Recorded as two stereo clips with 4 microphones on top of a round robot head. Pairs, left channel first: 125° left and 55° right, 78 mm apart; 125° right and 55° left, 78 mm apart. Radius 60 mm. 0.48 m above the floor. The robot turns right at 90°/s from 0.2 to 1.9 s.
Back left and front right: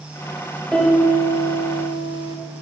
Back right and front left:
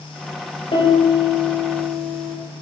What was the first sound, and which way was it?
A piano, 150° right.